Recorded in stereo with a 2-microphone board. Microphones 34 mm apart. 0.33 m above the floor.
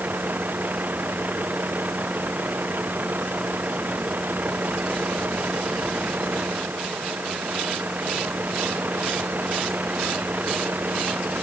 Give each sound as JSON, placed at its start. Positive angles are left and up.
{"t": 0.0, "sound": "a vehicle", "side_deg": -55}